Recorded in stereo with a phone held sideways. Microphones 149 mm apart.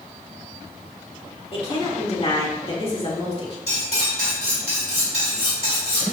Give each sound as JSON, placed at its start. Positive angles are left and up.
{"t": 1.5, "sound": "a woman speaking", "side_deg": 40, "distance_m": 2.5}
{"t": 3.7, "sound": "cutlery clinking", "side_deg": -45, "distance_m": 3.5}